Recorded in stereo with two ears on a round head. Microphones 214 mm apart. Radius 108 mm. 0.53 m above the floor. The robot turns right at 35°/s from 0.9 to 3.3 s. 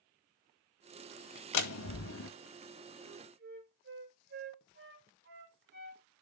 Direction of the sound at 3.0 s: 40° right (ahead or behind).